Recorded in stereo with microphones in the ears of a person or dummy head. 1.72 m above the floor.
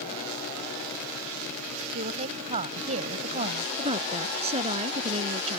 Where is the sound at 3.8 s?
40° right (ahead or behind).